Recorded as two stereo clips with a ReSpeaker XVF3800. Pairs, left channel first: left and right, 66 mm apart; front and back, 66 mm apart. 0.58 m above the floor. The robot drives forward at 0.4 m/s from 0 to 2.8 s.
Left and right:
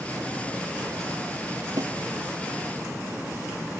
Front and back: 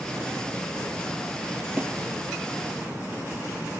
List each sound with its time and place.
1.8 s a snare drum: 110° right